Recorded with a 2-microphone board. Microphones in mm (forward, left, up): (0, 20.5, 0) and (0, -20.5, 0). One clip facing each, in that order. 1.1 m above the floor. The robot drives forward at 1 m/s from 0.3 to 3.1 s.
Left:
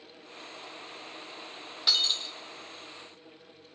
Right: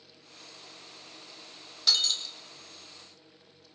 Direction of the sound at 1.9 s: 20° left (ahead or behind).